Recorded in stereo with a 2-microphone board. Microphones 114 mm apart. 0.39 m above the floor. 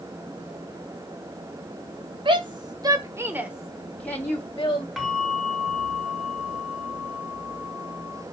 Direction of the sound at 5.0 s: Centre (ahead or behind).